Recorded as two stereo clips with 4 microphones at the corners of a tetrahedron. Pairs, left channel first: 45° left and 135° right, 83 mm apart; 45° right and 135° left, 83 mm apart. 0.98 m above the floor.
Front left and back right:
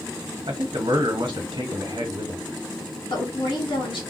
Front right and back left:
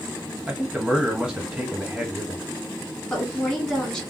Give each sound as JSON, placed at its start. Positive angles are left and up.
{"t": 0.5, "sound": "a man speaking", "azimuth_deg": -145, "distance_m": 1.4}
{"t": 3.1, "sound": "a woman speaking", "azimuth_deg": 40, "distance_m": 1.9}